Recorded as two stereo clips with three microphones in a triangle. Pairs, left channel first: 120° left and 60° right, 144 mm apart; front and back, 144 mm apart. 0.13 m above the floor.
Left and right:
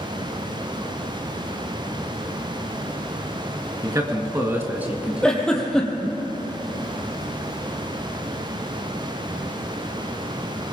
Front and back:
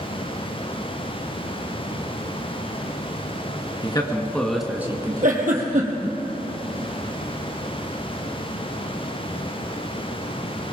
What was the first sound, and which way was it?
A man speaking, 20° right.